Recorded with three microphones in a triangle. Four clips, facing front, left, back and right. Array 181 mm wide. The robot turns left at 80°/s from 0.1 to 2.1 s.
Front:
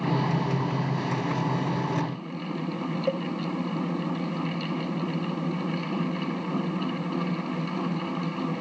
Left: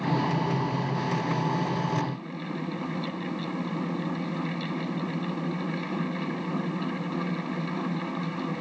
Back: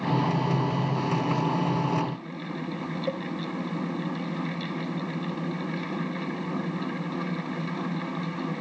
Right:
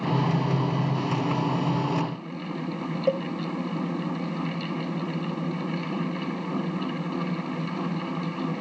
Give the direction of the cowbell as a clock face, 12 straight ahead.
3 o'clock.